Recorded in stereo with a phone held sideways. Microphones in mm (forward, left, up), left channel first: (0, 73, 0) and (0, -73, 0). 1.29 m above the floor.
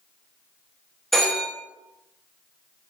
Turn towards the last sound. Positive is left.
turn(degrees=0)  # may be behind; listen again after turning